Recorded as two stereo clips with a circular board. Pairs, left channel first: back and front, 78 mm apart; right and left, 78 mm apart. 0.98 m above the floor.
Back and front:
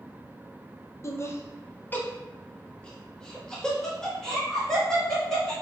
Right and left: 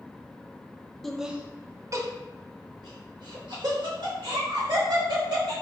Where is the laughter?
175° right, 0.5 m; by 5.5 s 95° left, 2.5 m.